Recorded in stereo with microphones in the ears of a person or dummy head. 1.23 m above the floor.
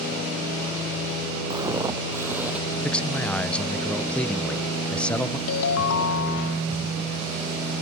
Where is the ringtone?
70° left (ahead or behind).